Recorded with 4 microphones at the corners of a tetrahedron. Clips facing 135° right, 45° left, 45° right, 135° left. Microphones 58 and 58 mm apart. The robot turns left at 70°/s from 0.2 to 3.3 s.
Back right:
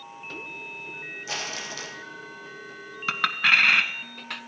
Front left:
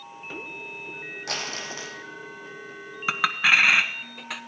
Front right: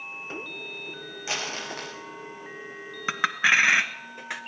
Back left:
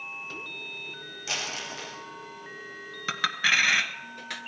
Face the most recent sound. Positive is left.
turn(degrees=-30)